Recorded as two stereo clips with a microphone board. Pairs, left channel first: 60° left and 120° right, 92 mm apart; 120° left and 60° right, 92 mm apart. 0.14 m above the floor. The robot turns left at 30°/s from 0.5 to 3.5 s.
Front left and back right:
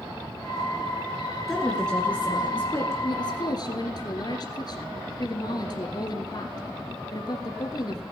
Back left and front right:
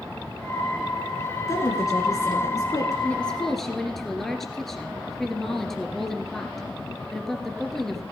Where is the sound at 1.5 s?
145° left, 2 m; by 2.9 s 100° left, 2 m.